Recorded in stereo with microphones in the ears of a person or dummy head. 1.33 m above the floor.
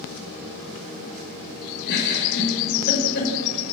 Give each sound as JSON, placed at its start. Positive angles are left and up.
{"t": 1.9, "sound": "a giggle", "side_deg": 55, "distance_m": 4.5}